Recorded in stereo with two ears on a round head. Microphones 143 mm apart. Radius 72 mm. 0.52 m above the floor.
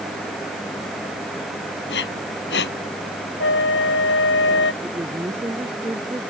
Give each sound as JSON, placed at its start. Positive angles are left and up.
{"t": 1.9, "sound": "breathing", "side_deg": 80}
{"t": 3.4, "sound": "a flute", "side_deg": 85}
{"t": 4.8, "sound": "a woman speaking", "side_deg": -15}